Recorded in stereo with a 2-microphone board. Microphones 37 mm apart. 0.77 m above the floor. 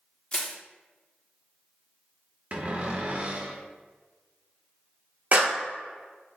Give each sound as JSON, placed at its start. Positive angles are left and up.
{"t": 0.3, "sound": "crushing", "side_deg": 30, "distance_m": 0.5}
{"t": 2.5, "sound": "a cupboard door", "side_deg": -40, "distance_m": 0.6}
{"t": 5.3, "sound": "a clap", "side_deg": -45, "distance_m": 0.6}